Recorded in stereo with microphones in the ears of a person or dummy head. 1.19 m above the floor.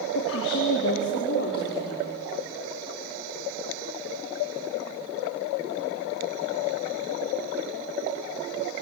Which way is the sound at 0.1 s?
80° left.